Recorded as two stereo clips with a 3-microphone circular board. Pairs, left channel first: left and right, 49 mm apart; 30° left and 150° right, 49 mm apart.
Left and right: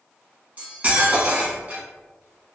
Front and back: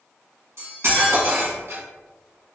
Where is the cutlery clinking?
145° right, 1.0 m.